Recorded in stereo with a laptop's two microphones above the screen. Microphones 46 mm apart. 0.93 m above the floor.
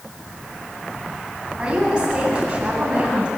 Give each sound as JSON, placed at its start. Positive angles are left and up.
{"t": 1.6, "sound": "a woman speaking", "side_deg": -25, "distance_m": 7.5}